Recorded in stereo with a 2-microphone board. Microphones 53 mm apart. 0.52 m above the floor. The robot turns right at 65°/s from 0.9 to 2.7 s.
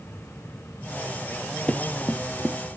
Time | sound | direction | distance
1.7 | running footsteps | 25° left (ahead or behind) | 0.6 m